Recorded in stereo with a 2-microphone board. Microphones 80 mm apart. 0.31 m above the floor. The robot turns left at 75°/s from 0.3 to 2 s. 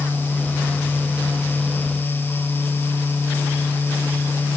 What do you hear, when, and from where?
Only background noise.